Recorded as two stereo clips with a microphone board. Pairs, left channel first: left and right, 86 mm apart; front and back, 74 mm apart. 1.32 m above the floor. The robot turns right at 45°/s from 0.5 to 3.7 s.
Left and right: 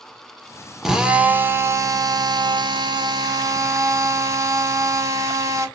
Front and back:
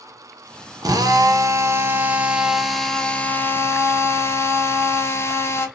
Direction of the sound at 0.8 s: 175° right.